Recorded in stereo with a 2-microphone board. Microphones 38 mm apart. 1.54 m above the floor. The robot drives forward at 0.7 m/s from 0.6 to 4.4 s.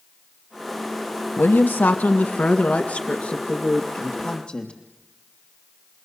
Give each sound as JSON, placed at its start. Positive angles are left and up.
{"t": 1.4, "sound": "a woman speaking", "side_deg": 65, "distance_m": 1.3}